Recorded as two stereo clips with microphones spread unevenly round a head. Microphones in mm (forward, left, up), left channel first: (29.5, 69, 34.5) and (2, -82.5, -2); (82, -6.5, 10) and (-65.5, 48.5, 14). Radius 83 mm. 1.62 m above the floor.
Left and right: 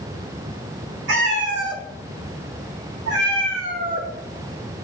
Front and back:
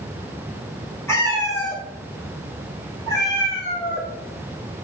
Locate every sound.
1.1 s a cat meowing: 95° right, 2.5 m; by 4.1 s 90° right, 4 m